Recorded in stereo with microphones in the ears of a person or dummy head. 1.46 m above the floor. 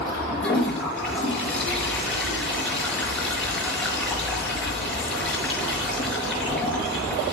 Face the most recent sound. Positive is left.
turn(degrees=10)  # may be behind; listen again after turning